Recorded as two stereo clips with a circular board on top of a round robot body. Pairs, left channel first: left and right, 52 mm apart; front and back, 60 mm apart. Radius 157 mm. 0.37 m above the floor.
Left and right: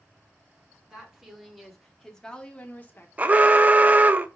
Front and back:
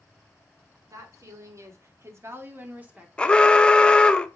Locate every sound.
0.9 s a woman speaking: 165° right, 1.7 m; by 3.1 s 115° left, 1.1 m
3.2 s an alarm: 60° right, 0.6 m